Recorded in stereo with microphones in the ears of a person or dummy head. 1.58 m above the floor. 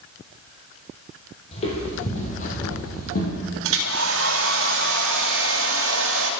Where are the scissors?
I don't hear scissors.